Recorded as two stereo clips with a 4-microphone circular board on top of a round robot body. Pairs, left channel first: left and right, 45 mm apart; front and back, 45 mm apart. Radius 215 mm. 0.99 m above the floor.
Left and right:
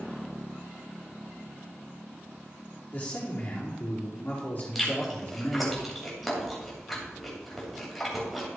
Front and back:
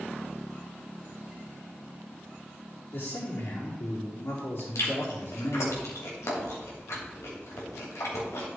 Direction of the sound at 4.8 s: Straight ahead.